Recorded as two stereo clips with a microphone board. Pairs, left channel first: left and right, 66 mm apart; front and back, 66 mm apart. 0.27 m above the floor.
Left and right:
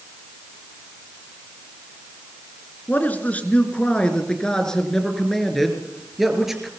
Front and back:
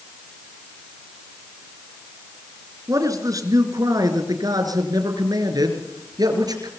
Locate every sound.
2.9 s a man speaking: 150° left, 3 m; by 6.7 s 175° right, 4 m